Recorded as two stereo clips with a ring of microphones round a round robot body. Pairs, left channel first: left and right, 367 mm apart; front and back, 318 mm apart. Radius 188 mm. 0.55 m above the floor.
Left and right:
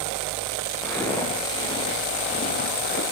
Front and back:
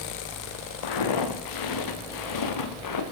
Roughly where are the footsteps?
Ahead.